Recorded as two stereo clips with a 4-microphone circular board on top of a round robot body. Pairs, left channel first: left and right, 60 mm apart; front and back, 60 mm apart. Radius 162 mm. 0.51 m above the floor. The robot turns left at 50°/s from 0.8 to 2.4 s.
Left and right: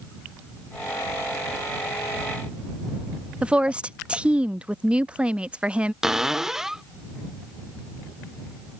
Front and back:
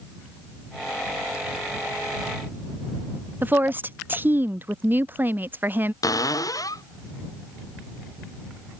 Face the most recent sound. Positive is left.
turn(degrees=-10)